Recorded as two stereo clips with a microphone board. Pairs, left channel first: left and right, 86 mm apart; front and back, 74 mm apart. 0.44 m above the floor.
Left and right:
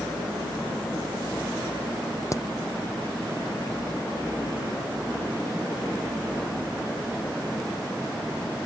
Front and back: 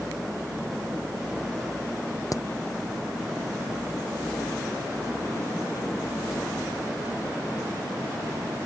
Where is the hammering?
40° left.